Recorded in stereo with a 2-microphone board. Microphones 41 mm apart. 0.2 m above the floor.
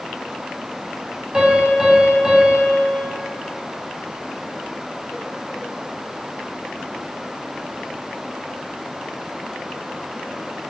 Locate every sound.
1.3 s a piano: 20° right (ahead or behind), 0.5 m